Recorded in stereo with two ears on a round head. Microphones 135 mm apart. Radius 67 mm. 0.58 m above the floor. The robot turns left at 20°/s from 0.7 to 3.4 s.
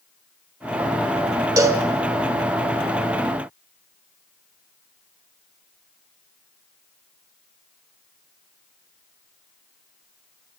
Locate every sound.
1.6 s a cowbell: 25° right (ahead or behind), 1.9 m; by 1.9 s 30° right (ahead or behind), 1.9 m